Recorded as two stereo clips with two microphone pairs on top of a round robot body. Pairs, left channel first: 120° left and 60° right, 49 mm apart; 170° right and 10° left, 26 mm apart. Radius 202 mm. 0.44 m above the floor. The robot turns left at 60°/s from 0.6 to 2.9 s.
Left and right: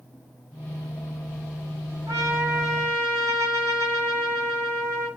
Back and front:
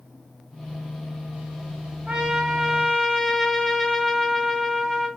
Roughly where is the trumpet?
Ahead right.